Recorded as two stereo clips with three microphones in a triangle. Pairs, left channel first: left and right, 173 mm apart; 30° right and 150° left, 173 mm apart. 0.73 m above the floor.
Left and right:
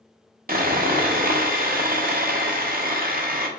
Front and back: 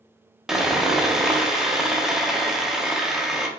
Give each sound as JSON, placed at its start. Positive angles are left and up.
{"t": 0.5, "sound": "sawing", "azimuth_deg": -125, "distance_m": 0.5}